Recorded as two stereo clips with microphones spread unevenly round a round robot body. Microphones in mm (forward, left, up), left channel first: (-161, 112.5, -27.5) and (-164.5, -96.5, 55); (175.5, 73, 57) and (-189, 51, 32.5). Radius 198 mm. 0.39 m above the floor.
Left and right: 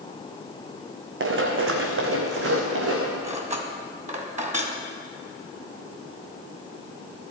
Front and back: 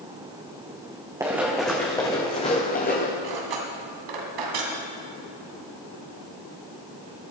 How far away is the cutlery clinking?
About 2.5 m.